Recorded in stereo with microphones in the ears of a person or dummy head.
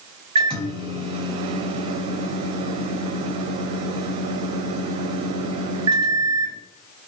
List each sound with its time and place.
0.3 s a microwave: 25° right (ahead or behind), 0.5 m